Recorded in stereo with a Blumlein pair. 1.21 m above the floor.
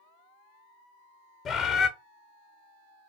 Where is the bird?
25° left, 0.7 m.